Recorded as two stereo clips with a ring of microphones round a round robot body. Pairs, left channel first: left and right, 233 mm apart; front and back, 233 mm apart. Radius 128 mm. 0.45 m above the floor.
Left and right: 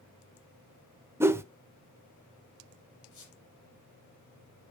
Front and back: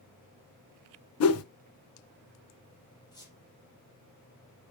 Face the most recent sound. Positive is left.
turn(degrees=75)